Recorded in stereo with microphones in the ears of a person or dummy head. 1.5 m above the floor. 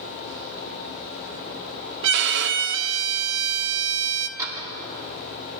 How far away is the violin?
About 0.6 m.